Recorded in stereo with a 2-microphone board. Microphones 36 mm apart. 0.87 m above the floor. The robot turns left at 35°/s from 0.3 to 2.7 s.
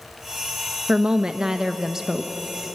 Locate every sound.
0.9 s a woman speaking: 20° right (ahead or behind), 0.7 m; by 2.3 s 10° right (ahead or behind), 0.7 m